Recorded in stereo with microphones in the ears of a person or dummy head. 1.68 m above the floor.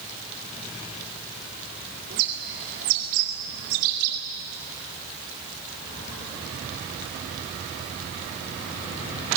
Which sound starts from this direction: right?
A bird, at 2.1 s.